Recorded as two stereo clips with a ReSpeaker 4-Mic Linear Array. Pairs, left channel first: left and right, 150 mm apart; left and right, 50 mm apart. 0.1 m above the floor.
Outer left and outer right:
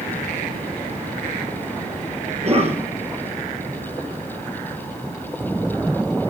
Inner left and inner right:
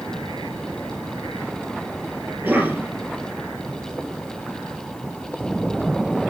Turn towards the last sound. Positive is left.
turn(degrees=-45)  # may be behind; listen again after turning